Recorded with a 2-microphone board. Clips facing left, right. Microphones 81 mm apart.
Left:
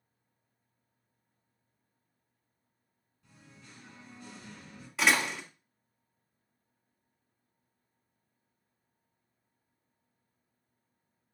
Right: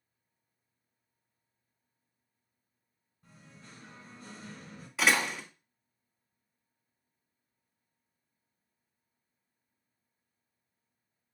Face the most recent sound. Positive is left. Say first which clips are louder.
# even
turn(degrees=0)  # may be behind; listen again after turning